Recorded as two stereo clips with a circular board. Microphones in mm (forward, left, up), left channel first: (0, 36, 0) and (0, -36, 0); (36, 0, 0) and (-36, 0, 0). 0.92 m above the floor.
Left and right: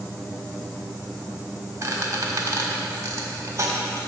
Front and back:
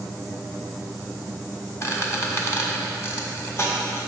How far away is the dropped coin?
No dropped coin in this recording.